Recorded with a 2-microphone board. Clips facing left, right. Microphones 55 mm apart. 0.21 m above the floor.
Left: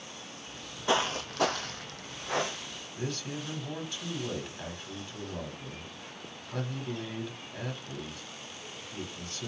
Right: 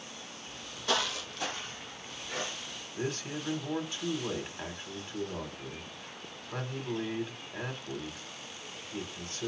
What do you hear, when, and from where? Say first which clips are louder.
0.5 s footsteps: left 4 dB; 5° left (ahead or behind), 0.7 m; by 2.8 s 65° left (ahead or behind), 1.2 m
3.0 s a man speaking: right 1 dB; 15° right (ahead or behind), 1.1 m